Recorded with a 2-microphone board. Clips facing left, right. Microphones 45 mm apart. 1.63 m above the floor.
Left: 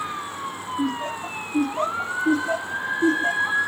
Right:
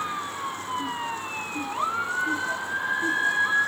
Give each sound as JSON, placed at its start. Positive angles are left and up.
{"t": 0.8, "sound": "laughter", "side_deg": 55}